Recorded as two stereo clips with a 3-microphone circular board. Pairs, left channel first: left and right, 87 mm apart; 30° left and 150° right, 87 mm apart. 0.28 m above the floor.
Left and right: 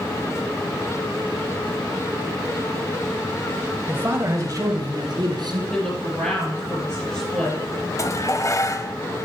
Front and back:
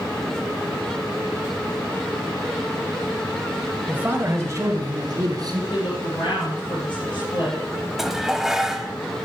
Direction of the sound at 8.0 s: 125° left.